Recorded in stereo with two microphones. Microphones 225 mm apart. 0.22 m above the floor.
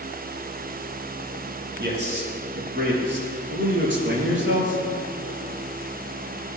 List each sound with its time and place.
1.8 s a man speaking: 50° right (ahead or behind), 6 m; by 4.8 s 60° right (ahead or behind), 4.5 m